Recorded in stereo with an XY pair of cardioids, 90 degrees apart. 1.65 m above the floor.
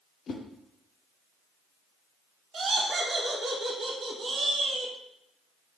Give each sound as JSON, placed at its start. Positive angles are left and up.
{"t": 0.3, "sound": "a whoosh", "azimuth_deg": 60, "distance_m": 0.7}
{"t": 2.5, "sound": "laughter", "azimuth_deg": -45, "distance_m": 1.0}